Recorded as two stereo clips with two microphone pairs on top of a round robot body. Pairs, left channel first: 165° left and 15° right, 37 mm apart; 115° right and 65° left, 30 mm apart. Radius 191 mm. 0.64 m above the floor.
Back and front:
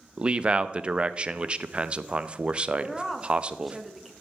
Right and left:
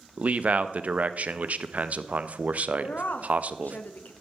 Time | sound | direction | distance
0.2 | a man speaking | 40° left | 0.7 m
2.8 | a woman speaking | 110° right | 1.1 m